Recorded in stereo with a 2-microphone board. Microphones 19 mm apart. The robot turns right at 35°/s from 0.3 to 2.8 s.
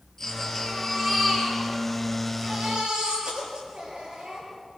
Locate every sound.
0.2 s a baby crying: 160° left, 10 m; by 4.5 s 115° right, 10 m